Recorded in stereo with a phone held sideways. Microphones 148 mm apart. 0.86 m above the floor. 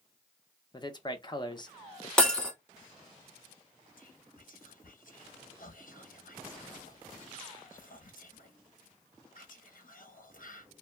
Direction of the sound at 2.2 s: 5° left (ahead or behind).